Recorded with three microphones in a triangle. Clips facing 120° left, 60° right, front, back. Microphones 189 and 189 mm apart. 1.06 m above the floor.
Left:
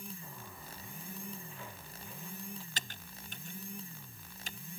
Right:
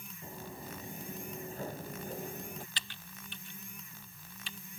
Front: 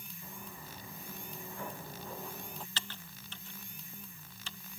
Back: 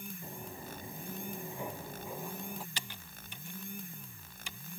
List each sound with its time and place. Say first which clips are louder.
0.2 s footsteps: right 6 dB, back 4 dB; 125° right; by 2.7 s 95° right
2.8 s typing on a keyboard: left 2 dB, even; 110° left